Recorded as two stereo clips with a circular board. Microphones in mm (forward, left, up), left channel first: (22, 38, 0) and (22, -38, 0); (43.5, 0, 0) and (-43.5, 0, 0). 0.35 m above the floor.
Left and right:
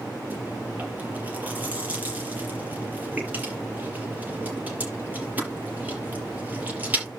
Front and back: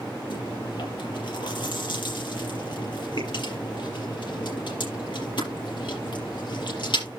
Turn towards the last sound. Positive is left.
turn(degrees=-25)